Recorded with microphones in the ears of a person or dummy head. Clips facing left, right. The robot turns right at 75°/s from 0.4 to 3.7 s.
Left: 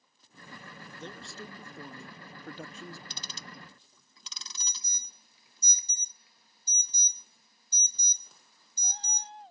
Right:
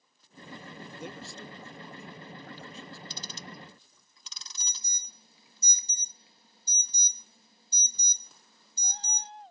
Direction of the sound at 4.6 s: 25° right (ahead or behind).